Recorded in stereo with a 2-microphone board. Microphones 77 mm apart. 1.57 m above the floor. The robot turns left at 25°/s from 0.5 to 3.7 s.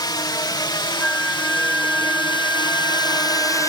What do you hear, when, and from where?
0.0 s a drone: 65° left (ahead or behind); by 3.7 s 45° left (ahead or behind)
1.0 s a flute: 10° left; by 3.7 s 60° right